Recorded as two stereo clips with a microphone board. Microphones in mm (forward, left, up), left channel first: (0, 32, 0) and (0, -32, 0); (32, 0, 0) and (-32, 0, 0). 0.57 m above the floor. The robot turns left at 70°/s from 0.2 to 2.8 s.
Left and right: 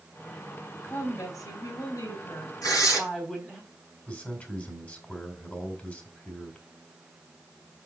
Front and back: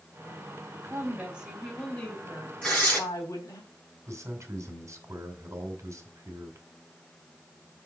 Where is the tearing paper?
80° left, 4.5 m; by 3.0 s 65° left, 4.5 m.